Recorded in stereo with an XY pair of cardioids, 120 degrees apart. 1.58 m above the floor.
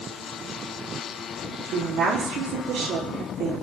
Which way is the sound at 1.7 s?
65° right.